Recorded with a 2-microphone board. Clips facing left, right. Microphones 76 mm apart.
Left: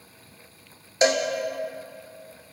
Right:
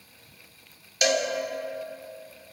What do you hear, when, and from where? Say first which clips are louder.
1.0 s a cowbell: left 3 dB; 30° left (ahead or behind), 0.6 m